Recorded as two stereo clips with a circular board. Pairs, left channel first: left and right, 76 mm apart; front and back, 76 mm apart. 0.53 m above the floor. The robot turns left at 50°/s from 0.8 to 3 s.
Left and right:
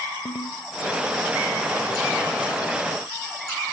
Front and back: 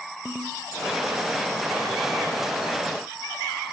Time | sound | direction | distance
0.2 | a ringtone | 110° left | 1.1 m